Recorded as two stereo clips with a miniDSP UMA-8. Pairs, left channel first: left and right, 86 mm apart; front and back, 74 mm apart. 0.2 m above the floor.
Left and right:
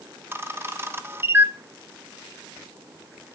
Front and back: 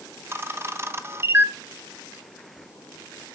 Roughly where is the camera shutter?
Behind right.